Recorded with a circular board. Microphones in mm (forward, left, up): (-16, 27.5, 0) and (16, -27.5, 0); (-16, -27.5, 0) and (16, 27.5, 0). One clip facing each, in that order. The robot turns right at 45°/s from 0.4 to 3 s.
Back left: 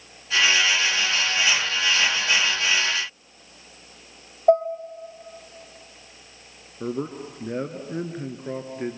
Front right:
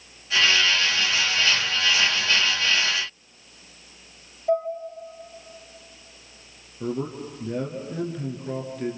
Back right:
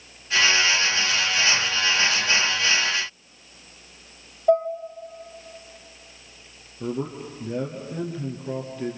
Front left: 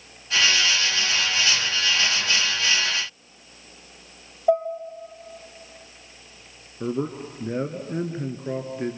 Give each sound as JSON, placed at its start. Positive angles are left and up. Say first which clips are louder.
{"t": 4.5, "sound": "dishes clattering", "louder": "back left 6 dB, back right 1 dB", "azimuth_deg": 145, "distance_m": 3.0}
{"t": 6.8, "sound": "a man speaking", "louder": "even, front left 2 dB", "azimuth_deg": 85, "distance_m": 1.8}